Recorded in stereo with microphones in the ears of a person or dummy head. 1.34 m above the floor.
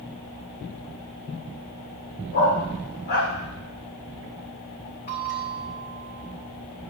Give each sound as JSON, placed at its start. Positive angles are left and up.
{"t": 2.3, "sound": "a dog barking", "side_deg": 40, "distance_m": 1.8}
{"t": 5.1, "sound": "a bell", "side_deg": 50, "distance_m": 3.0}